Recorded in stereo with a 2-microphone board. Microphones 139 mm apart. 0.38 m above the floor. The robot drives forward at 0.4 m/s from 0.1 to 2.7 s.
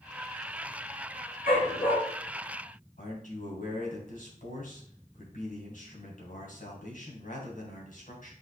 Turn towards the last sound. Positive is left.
turn(degrees=65)  # may be behind; listen again after turning